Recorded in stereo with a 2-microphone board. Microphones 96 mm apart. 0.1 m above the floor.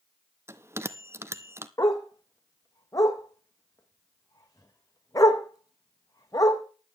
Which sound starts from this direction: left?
A dog barking, at 1.8 s.